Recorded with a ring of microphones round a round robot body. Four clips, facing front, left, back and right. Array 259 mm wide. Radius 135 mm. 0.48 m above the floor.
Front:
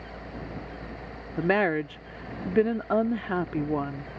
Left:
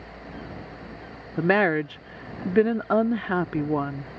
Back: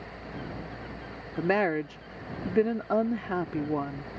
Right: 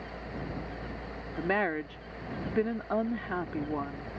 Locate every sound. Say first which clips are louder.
1.4 s a woman speaking: left 9 dB, front 2 dB; 80° left